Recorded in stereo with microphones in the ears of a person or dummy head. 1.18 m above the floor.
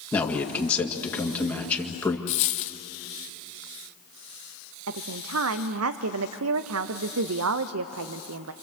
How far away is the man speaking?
About 2.0 m.